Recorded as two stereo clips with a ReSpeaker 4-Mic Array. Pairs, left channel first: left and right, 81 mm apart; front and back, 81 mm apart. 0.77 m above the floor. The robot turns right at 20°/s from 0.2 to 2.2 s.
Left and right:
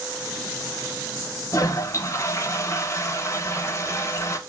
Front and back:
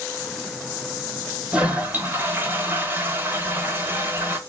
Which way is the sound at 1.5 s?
110° left.